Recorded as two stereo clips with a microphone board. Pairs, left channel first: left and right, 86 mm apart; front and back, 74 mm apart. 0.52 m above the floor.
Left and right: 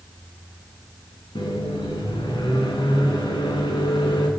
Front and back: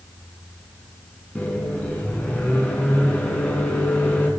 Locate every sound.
1.4 s a microwave: 70° left, 3.5 m